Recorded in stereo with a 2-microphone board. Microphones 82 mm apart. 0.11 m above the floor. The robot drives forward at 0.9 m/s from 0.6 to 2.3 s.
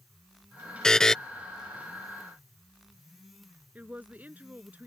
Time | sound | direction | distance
0.8 | a buzzer | 10° left (ahead or behind) | ?
3.8 | a woman speaking | 20° right (ahead or behind) | ?